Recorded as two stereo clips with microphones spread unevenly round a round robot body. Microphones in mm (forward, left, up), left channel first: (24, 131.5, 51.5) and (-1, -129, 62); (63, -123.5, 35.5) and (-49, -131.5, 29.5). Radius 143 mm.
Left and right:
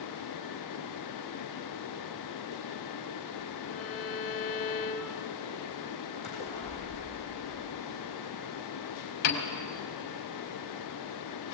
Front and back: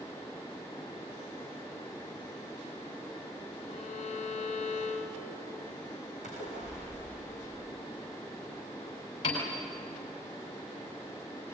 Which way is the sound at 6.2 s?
150° left.